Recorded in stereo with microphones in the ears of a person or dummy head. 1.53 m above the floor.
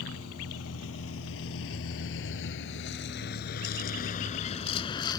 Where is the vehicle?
90° left; by 5.2 s 20° left (ahead or behind).